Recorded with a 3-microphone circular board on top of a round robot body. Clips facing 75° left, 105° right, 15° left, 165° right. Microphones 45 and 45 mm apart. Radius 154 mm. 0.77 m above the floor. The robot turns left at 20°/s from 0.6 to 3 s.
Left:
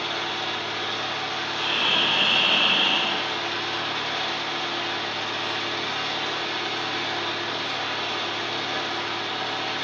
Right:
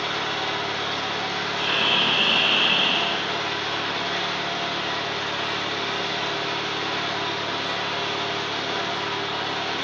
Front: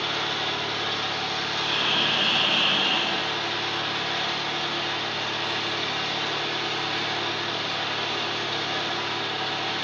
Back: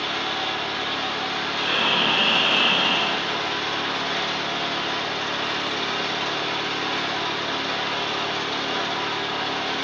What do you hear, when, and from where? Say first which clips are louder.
0.0 s an engine running: right 2 dB, back 1 dB; 85° right, 1.1 m; by 9.8 s 130° right, 1.1 m
1.6 s breathing: right 1 dB, back 4 dB; 165° right, 1.0 m; by 3.3 s 165° left, 1.0 m